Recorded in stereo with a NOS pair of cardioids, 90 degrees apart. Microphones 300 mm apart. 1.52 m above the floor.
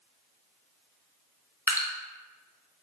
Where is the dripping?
10° right, 0.6 m.